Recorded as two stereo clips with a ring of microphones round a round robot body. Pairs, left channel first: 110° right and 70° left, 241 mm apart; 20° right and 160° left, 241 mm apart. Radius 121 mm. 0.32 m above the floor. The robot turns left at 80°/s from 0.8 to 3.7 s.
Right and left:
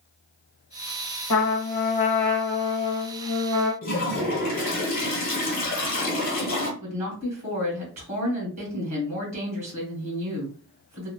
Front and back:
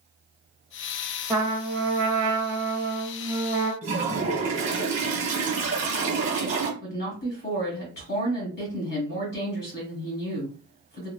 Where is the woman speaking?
20° left, 1.7 m.